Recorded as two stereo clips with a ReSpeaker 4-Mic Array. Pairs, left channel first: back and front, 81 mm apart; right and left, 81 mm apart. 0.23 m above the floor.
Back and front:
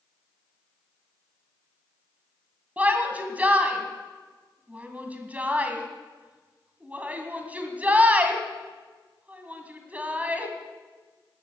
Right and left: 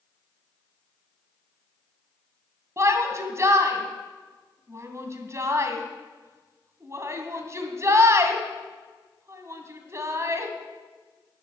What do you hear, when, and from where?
2.8 s a shout: 60° left, 2 m